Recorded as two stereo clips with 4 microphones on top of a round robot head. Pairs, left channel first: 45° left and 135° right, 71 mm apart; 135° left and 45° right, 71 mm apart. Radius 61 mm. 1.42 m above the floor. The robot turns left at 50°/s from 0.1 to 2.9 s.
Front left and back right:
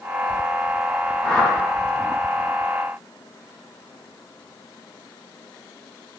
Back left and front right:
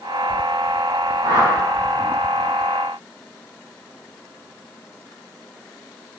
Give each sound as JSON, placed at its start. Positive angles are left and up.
{"t": 1.2, "sound": "a whoosh", "azimuth_deg": -25, "distance_m": 0.7}